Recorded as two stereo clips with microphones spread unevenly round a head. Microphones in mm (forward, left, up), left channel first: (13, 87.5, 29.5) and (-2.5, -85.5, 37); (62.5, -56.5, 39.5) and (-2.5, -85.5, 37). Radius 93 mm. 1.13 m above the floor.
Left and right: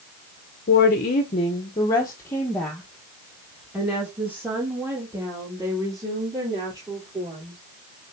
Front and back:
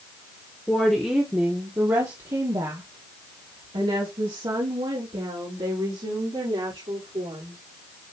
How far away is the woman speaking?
About 1.0 m.